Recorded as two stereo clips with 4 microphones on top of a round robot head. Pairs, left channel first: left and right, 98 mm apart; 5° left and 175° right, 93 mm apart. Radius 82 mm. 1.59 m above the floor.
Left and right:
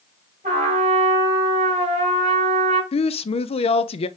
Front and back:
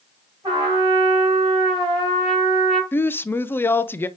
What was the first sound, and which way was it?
A trumpet, 115° right.